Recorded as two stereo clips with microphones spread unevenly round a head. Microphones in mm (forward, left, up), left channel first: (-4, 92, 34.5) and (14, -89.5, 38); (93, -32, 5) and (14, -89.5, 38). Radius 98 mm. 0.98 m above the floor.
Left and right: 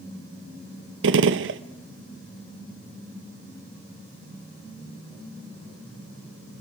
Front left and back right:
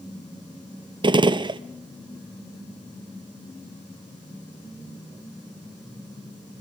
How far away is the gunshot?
About 0.7 m.